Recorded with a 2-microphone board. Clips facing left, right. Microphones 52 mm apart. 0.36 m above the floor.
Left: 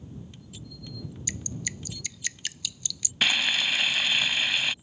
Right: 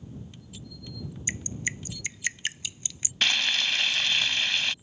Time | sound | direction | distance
1.3 | dripping | 30° right (ahead or behind) | ?
3.2 | frying | 5° left (ahead or behind) | ?